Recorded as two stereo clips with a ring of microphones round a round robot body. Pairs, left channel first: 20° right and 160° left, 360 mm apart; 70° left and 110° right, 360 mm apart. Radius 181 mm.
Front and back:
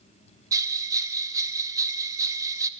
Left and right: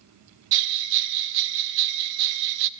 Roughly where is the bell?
Behind right.